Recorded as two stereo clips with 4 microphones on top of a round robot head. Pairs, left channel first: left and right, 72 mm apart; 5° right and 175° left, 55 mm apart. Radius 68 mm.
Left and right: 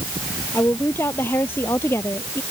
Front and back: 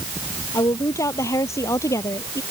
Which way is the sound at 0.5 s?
20° left.